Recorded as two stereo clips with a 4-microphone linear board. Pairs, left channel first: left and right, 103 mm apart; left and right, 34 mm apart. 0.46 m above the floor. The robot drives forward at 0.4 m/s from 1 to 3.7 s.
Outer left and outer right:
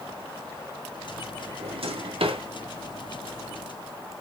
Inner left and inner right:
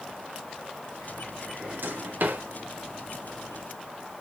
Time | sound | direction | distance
1.6 | a drawer | 65° right (ahead or behind) | 0.7 m